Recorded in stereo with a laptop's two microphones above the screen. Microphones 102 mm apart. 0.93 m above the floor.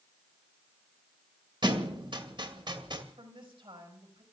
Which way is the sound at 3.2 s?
60° right (ahead or behind).